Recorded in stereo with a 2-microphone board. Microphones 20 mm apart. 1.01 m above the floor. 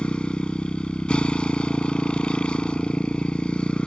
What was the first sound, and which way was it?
A motorcycle, 60° left (ahead or behind).